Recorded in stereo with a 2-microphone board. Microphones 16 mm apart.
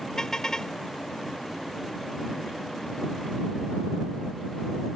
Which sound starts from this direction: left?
A car horn, at 0.2 s.